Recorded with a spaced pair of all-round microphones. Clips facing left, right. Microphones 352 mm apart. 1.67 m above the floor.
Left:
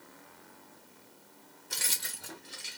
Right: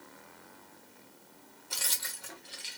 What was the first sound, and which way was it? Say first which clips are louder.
Keys jangling: left 2 dB; 25° left (ahead or behind).